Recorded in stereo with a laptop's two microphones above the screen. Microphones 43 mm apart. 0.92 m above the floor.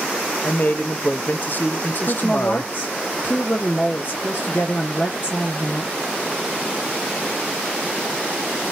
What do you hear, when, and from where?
0.4 s a man speaking: 40° left (ahead or behind), 0.8 m
2.1 s a woman speaking: 50° left (ahead or behind), 1.8 m